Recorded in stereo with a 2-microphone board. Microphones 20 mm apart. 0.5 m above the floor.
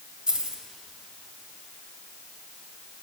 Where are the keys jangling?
70° right (ahead or behind), 2.0 m.